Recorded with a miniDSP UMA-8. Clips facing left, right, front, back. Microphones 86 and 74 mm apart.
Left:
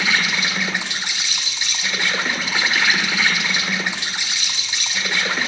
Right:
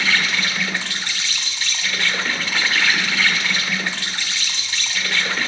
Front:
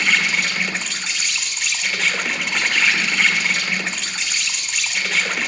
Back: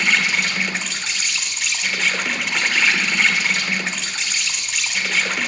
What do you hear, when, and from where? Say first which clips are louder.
0.0 s an insect: even, even; 95° left, 1.2 m